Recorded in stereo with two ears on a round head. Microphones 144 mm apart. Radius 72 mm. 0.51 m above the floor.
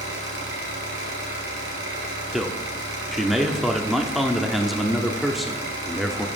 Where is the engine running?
80° right, 3 m.